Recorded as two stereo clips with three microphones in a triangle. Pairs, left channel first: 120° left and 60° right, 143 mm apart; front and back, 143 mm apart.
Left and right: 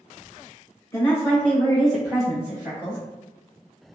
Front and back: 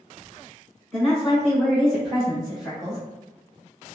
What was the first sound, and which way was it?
A woman speaking, 80° left.